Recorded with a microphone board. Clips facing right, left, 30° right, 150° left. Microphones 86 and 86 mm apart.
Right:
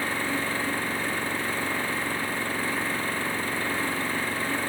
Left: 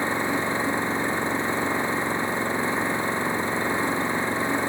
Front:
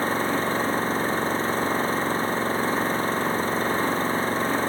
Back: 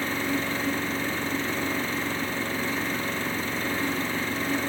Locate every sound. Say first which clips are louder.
0.0 s an engine running: left 4 dB, front 4 dB; 20° left